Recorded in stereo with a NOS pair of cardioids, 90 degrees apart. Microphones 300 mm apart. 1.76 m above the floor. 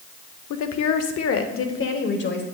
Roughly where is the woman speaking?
Left.